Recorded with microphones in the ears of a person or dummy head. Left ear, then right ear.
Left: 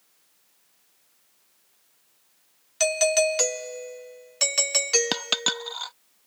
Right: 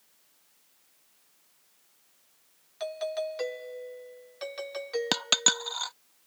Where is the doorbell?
65° left (ahead or behind).